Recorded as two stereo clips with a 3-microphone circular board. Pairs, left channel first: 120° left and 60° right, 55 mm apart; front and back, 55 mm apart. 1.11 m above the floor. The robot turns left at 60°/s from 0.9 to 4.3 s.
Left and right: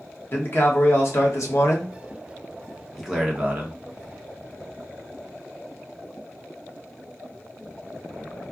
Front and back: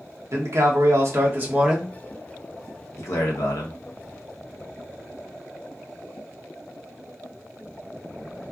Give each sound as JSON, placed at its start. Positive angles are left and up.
{"t": 0.3, "sound": "a man speaking", "azimuth_deg": 160, "distance_m": 0.8}